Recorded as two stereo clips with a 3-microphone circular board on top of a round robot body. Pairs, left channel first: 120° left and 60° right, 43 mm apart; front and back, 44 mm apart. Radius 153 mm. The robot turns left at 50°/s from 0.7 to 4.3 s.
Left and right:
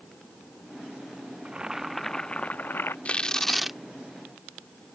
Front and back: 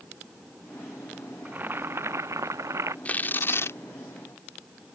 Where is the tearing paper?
60° left; by 3.8 s 20° left.